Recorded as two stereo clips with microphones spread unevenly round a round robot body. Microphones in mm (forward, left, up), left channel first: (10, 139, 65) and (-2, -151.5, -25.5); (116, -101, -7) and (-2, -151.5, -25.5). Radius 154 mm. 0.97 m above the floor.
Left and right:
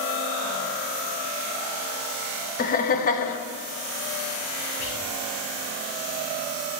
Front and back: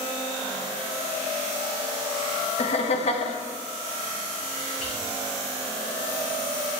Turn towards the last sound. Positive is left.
turn(degrees=35)